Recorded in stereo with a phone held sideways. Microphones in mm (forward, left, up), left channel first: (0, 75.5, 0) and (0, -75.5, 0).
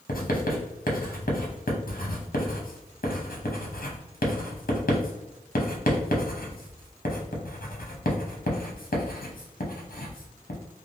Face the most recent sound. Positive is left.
turn(degrees=75)  # may be behind; listen again after turning